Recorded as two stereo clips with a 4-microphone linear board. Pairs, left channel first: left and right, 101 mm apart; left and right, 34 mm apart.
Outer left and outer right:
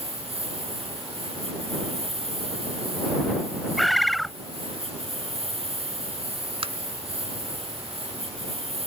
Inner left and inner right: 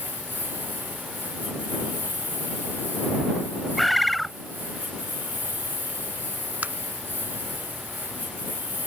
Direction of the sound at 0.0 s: 75° right (ahead or behind).